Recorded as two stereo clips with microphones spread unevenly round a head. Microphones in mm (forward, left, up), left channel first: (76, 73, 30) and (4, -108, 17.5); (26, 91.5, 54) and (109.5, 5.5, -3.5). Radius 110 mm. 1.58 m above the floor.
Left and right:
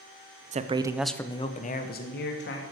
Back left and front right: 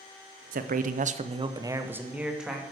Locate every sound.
0.5 s a man speaking: 60° right, 0.9 m; by 2.6 s 45° left, 1.7 m